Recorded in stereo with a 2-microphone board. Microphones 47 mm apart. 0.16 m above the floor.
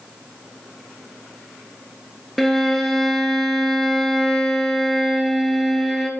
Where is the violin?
Centre (ahead or behind), 0.7 m.